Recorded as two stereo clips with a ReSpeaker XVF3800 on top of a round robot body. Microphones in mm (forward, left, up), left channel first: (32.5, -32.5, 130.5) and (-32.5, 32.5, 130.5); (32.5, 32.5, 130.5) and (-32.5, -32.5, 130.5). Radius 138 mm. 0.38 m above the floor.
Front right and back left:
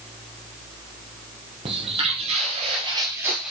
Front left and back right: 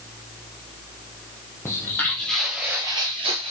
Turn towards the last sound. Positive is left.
turn(degrees=-145)